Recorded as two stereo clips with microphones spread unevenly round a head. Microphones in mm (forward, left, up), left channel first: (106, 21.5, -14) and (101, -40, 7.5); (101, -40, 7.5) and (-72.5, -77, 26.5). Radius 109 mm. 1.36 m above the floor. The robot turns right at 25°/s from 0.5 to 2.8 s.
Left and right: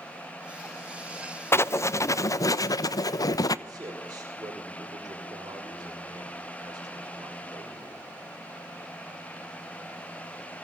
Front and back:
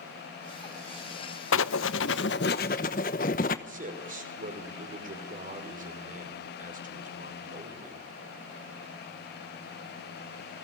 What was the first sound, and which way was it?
Writing, 35° left.